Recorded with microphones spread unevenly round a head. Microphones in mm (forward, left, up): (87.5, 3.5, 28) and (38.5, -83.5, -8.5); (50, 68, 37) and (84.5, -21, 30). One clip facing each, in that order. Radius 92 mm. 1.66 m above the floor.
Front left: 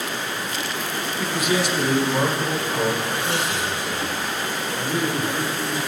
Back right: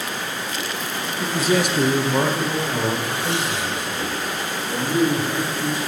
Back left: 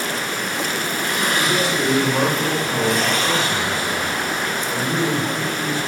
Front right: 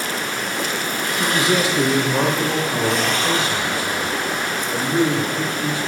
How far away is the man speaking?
About 0.6 m.